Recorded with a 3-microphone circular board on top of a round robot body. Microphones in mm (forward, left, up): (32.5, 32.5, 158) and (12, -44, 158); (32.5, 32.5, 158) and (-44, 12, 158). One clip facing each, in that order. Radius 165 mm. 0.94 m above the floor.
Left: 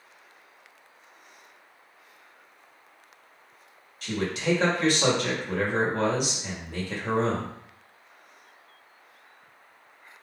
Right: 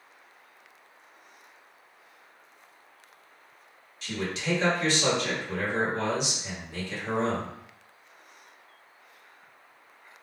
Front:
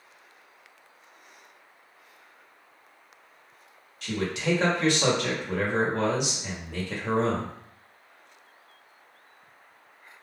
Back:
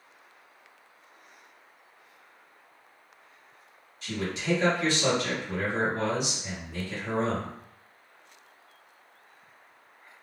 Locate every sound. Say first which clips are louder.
4.0 s a man speaking: left 4 dB, front 3 dB; 35° left, 1.4 m